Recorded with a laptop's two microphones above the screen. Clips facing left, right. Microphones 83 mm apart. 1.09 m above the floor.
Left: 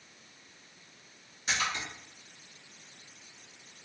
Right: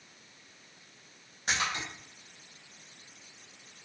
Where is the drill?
No drill in this recording.